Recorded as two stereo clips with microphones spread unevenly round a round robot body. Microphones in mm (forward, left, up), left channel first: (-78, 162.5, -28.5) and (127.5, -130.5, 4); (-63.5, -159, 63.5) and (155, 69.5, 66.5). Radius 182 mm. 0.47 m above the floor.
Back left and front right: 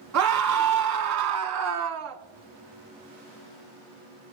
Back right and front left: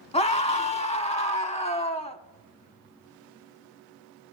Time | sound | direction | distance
0.1 | a scream | 75° right | 1.2 m